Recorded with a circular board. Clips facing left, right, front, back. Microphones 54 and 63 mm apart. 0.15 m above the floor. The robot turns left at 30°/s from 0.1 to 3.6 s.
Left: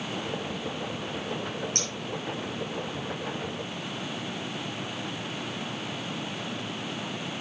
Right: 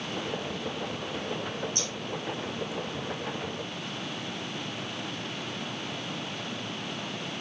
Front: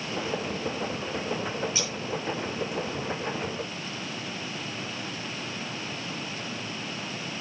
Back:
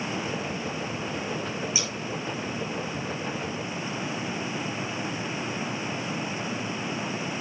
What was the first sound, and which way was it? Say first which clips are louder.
Scissors: left 1 dB, even; 105° left.